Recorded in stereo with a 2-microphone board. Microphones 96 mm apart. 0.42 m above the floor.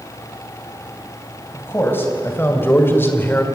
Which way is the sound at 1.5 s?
25° left (ahead or behind).